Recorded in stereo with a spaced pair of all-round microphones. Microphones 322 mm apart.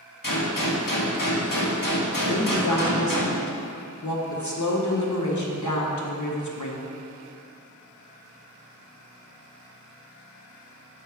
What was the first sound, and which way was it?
A gunshot, 85° left.